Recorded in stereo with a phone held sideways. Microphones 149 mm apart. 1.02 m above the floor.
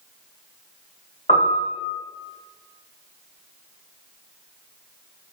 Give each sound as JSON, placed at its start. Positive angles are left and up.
{"t": 1.3, "sound": "a piano", "side_deg": 35, "distance_m": 1.5}